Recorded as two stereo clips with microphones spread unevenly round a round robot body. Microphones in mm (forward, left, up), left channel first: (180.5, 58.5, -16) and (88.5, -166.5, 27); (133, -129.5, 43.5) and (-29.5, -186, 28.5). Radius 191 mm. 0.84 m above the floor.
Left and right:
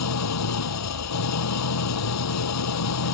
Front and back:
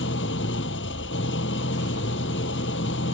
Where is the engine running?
70° left.